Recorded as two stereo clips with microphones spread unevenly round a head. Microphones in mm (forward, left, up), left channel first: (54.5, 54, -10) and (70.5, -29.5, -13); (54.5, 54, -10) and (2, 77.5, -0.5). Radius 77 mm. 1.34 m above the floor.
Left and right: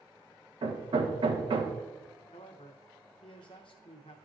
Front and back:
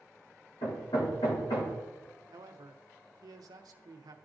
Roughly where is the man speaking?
Behind left.